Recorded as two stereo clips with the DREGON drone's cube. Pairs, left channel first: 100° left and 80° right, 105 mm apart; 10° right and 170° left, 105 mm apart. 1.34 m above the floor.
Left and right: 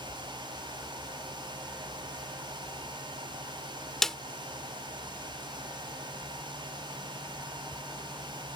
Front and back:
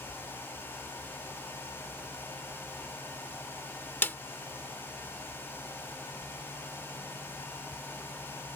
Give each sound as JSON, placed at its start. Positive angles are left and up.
{"t": 4.0, "sound": "a snare drum", "azimuth_deg": 20}